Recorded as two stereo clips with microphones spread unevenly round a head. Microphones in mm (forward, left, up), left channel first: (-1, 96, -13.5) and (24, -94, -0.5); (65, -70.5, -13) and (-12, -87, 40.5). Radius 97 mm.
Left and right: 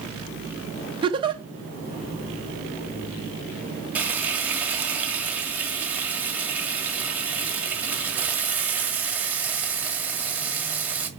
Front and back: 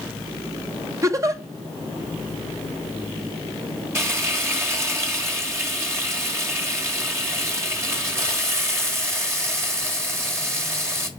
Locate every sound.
1.0 s a giggle: 145° right, 0.9 m
4.0 s frying: 160° right, 1.7 m